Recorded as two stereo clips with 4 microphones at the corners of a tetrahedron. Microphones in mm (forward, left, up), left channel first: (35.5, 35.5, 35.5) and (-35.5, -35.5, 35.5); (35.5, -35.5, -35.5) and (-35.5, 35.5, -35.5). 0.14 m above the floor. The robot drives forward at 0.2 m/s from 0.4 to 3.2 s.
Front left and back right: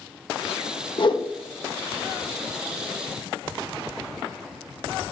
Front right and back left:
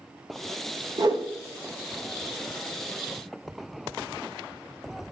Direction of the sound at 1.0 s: 85° left.